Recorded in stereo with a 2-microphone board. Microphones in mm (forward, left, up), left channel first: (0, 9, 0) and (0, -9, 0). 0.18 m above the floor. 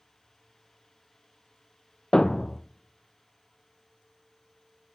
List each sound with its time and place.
2.1 s a thud: 40° left (ahead or behind), 0.6 m